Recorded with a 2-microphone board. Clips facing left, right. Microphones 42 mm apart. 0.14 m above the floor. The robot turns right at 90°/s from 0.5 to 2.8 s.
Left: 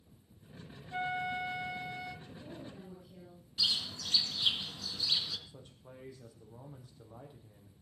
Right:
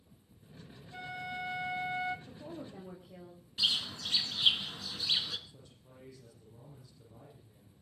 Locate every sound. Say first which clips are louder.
0.9 s a flute: left 6 dB; 125° left, 0.6 m; by 2.2 s 120° right, 0.6 m
2.3 s a woman speaking: right 2 dB; 110° right, 7 m; by 3.4 s 60° right, 7 m
3.6 s a bird: right 2 dB; 35° right (ahead or behind), 2.0 m
5.5 s a man speaking: left 4 dB; 50° left (ahead or behind), 5.5 m